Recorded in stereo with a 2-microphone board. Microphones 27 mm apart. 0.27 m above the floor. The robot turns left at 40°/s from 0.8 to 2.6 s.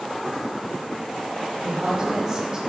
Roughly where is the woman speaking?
Right.